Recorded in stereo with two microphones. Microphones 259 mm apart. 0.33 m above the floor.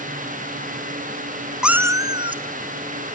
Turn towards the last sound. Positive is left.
turn(degrees=-25)  # may be behind; listen again after turning